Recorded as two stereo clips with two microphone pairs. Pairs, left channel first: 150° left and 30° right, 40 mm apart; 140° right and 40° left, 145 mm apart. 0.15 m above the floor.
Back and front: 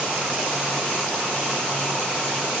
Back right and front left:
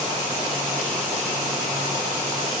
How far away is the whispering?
I don't hear whispering.